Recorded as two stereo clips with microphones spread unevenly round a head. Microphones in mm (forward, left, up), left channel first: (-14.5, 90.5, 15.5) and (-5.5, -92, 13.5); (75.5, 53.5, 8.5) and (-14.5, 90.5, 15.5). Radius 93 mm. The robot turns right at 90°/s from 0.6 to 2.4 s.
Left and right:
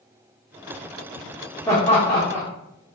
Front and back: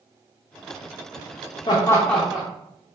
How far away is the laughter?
About 0.6 m.